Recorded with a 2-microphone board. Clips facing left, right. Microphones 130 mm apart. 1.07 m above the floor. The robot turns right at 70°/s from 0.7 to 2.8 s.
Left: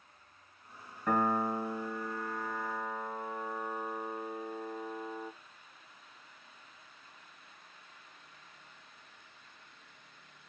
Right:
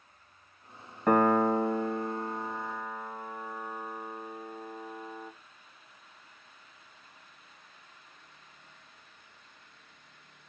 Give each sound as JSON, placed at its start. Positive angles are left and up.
{"t": 1.1, "sound": "a piano", "side_deg": -60, "distance_m": 0.6}